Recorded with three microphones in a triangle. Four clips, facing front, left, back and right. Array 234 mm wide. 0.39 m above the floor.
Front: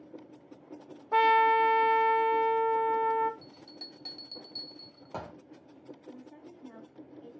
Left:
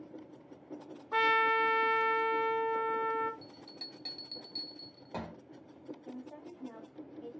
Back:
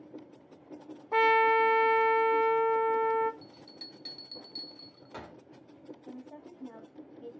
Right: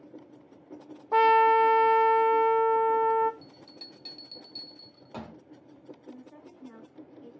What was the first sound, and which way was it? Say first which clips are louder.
A trumpet: right 9 dB, front 1 dB; 85° right.